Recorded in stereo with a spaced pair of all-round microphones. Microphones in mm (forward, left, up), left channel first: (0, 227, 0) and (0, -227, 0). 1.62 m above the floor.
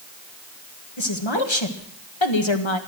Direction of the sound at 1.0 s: 75° left (ahead or behind).